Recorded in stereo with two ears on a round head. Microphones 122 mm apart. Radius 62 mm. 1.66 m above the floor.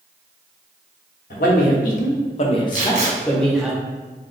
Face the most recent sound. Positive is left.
turn(degrees=-55)  # may be behind; listen again after turning